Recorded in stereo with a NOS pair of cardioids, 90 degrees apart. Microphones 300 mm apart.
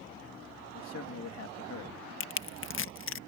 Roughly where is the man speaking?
Ahead left.